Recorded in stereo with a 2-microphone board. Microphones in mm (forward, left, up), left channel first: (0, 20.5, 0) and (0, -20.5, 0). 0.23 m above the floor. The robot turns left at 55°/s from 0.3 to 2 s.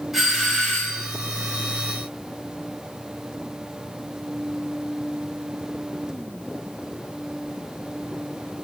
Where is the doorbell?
Straight behind, 1.7 m; by 1.1 s 135° left, 1.7 m.